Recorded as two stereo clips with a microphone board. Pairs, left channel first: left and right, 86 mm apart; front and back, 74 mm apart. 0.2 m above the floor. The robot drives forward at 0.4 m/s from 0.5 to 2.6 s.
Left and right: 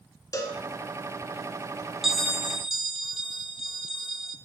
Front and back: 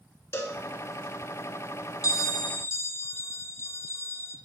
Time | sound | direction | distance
0.3 | a cowbell | 45° left | 1.2 m
2.0 | a bell | 5° right | 0.7 m